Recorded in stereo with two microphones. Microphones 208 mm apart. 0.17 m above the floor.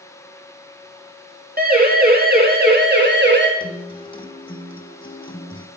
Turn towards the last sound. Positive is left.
turn(degrees=25)  # may be behind; listen again after turning